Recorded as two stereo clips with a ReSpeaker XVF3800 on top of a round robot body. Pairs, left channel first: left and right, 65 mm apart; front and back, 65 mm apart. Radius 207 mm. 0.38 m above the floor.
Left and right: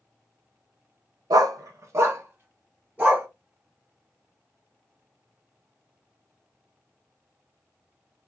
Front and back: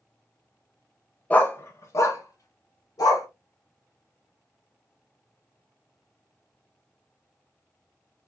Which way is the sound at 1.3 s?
70° right.